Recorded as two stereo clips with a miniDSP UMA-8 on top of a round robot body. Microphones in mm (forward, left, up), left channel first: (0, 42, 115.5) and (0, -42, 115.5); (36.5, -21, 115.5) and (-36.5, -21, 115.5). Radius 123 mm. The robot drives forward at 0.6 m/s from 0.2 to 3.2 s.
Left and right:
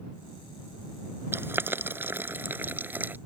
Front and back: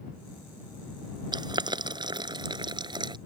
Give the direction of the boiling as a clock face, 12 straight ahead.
5 o'clock.